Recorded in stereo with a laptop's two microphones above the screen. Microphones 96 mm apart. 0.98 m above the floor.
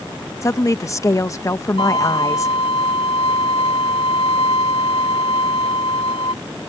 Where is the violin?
75° left (ahead or behind).